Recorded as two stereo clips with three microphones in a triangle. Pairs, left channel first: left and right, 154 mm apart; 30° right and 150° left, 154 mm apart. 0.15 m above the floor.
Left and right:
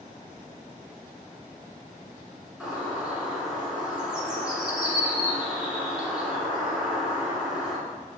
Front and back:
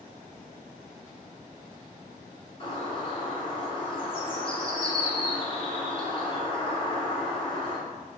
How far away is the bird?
About 1.4 m.